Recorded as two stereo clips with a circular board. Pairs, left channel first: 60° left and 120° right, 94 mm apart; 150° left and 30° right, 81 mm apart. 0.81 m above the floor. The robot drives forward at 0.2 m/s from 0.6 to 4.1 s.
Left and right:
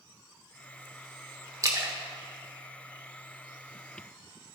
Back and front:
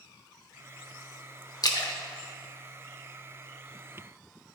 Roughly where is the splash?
Behind.